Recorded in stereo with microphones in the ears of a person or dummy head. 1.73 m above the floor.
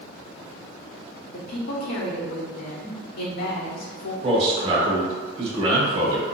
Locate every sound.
1.3 s a woman speaking: 65° left (ahead or behind), 1.0 m
4.2 s a man speaking: 35° right (ahead or behind), 1.2 m